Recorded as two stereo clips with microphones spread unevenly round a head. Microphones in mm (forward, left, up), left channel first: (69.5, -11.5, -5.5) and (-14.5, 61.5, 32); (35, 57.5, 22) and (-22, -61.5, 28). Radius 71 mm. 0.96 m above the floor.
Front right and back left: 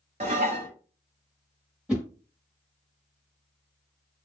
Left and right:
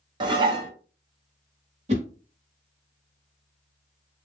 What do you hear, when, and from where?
0.2 s dishes clattering: 175° right, 0.8 m
1.9 s a whoosh: 150° right, 1.0 m